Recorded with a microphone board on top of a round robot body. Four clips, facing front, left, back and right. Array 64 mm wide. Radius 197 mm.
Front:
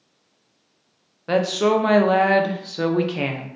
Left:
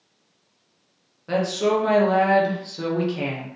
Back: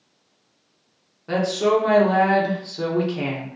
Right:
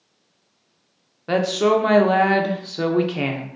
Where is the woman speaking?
45° right, 0.8 m.